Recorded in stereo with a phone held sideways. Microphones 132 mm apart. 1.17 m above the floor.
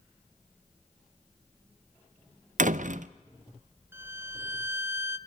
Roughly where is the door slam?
Right.